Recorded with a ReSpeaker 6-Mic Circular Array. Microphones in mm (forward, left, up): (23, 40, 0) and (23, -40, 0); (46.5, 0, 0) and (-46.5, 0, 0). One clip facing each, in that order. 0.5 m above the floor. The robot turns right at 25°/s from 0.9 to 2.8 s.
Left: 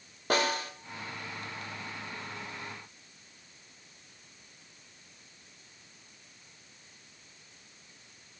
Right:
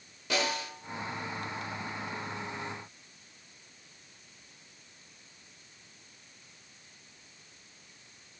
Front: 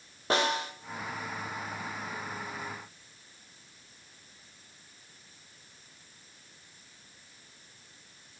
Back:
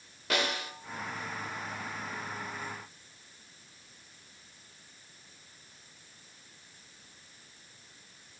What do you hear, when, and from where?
0.3 s a snare drum: 55° left, 1.0 m